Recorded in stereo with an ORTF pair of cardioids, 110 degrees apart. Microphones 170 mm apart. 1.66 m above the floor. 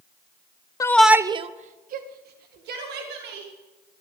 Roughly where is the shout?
Ahead.